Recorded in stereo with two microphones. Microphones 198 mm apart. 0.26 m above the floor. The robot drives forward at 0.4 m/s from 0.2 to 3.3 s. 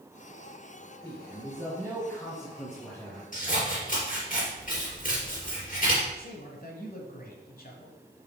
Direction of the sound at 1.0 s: 5° left (ahead or behind).